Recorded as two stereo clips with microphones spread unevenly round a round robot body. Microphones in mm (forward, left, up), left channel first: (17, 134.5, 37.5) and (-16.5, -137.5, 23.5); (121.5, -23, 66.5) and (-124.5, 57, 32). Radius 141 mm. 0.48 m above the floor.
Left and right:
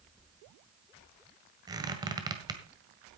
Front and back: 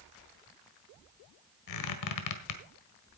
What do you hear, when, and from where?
1.7 s a squeak: 20° right, 1.7 m